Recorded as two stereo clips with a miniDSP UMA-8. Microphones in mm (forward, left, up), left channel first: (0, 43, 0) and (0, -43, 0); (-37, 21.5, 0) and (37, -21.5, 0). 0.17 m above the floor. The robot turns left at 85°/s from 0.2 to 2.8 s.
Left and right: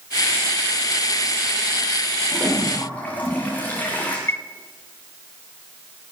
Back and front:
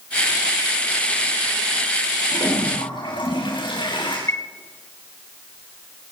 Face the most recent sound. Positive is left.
turn(degrees=125)